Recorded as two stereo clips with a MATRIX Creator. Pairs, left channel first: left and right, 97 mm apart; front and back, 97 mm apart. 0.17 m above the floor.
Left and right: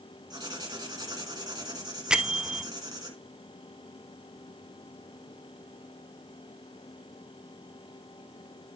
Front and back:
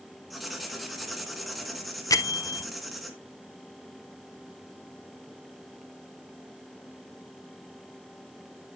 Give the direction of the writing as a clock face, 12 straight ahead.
3 o'clock.